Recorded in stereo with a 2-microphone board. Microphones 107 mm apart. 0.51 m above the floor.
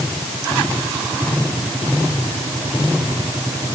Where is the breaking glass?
No breaking glass in this recording.